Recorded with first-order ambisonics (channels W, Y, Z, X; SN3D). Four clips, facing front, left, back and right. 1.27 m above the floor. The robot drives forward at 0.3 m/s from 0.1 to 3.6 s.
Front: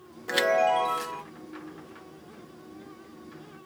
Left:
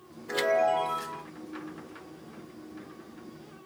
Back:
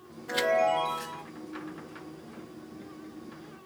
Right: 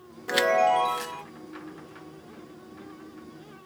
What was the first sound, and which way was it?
A chime, 60° right.